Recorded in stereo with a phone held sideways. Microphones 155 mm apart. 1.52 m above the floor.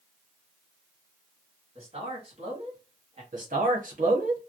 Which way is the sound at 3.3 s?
55° right (ahead or behind).